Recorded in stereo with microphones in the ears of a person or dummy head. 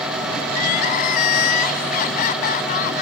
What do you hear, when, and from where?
0.5 s crying: 45° left (ahead or behind)